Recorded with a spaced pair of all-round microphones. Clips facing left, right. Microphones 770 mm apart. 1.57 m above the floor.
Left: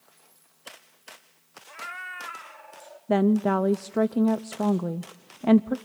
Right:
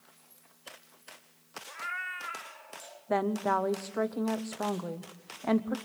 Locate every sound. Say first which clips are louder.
1.7 s a cat meowing: left 2 dB; 55° left (ahead or behind), 1.3 m; by 3.0 s 70° left (ahead or behind), 2 m
3.1 s a woman speaking: left 9 dB; 60° left (ahead or behind), 0.6 m